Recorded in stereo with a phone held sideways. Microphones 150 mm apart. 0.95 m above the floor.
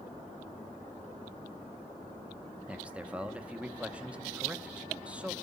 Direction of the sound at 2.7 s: 10° right (ahead or behind).